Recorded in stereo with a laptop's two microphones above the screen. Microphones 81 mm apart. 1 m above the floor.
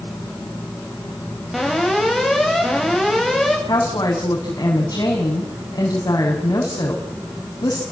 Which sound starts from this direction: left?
A woman speaking, at 3.7 s.